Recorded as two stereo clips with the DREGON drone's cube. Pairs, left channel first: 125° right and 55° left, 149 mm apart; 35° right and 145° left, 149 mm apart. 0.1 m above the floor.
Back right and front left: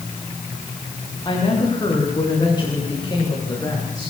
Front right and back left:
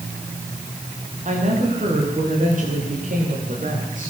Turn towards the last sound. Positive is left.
turn(degrees=170)